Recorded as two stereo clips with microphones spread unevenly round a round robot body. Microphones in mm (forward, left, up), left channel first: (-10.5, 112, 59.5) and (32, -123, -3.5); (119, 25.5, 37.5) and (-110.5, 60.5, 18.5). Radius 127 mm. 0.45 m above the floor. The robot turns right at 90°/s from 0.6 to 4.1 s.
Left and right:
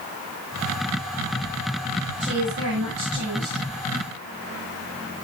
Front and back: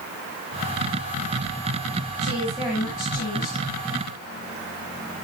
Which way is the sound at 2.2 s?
145° right.